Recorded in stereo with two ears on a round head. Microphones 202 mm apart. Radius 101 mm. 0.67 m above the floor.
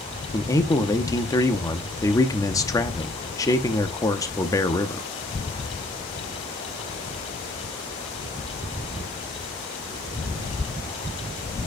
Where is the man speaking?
15° left (ahead or behind), 0.8 m.